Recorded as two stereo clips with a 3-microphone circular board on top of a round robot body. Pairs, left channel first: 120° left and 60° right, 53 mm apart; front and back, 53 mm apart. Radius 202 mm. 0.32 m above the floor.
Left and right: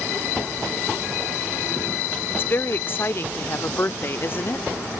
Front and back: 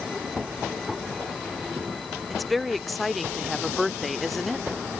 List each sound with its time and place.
2.3 s a woman speaking: 90° left